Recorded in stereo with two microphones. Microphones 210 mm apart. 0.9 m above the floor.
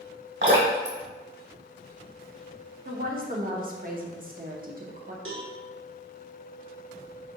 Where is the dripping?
70° right (ahead or behind), 1.5 m.